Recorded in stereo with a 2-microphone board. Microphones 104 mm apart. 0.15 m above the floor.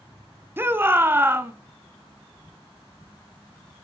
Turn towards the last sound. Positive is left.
turn(degrees=-20)  # may be behind; listen again after turning